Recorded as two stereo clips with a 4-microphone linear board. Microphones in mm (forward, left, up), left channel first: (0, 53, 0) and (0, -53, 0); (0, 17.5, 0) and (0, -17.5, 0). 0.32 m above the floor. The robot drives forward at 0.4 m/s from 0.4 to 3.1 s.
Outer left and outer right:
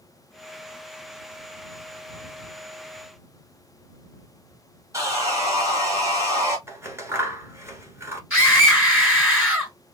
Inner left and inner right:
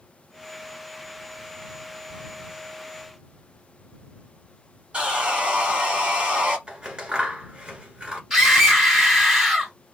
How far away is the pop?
I don't hear a pop.